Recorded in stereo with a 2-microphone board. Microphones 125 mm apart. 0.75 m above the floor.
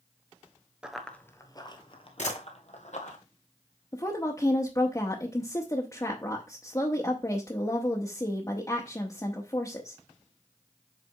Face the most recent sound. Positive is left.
turn(degrees=25)  # may be behind; listen again after turning